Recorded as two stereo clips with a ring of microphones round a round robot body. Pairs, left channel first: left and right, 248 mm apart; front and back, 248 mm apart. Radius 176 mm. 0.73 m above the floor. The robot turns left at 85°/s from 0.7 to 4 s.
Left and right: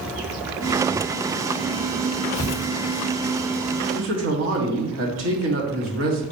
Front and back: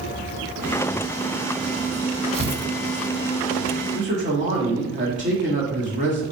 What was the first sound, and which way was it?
Tearing paper, 140° left.